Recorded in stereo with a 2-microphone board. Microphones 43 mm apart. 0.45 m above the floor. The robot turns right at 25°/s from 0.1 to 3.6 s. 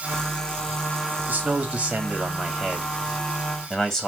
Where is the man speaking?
45° right, 3 m; by 4.1 s 10° left, 3 m.